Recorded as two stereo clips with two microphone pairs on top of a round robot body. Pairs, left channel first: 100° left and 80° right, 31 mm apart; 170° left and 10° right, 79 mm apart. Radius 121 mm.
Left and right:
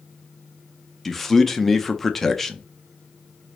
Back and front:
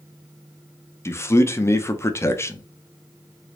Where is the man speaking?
140° left, 0.7 m.